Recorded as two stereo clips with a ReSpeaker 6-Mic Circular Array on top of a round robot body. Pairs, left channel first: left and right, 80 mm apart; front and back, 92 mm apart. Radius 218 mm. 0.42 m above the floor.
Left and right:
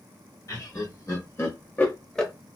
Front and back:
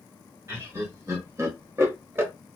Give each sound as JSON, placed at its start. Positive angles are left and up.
{"t": 0.5, "sound": "laughter", "azimuth_deg": 125, "distance_m": 2.0}